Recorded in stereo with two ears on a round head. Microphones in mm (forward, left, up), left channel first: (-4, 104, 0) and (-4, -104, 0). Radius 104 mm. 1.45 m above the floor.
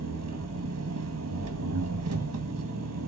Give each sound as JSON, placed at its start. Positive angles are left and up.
{"t": 0.0, "sound": "an engine running", "side_deg": -75, "distance_m": 1.7}